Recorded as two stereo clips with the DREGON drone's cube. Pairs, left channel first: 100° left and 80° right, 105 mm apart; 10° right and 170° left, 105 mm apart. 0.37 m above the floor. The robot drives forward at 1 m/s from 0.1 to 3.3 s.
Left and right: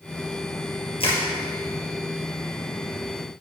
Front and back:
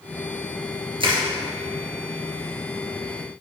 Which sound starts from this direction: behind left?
Crushing, at 1.0 s.